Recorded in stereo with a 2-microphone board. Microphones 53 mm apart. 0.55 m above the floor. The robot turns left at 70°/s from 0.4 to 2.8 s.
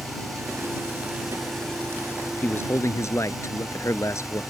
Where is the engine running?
105° right; by 4.5 s 85° left.